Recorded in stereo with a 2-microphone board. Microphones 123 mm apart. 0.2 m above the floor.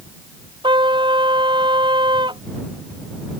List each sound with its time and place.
0.6 s a trumpet: 40° right (ahead or behind)